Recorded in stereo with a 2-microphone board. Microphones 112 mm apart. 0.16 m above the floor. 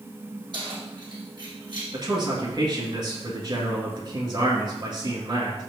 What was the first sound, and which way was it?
Keys jangling, 45° right (ahead or behind).